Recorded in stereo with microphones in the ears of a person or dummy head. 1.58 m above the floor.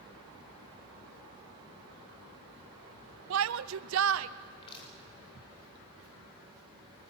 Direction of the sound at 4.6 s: 30° left (ahead or behind).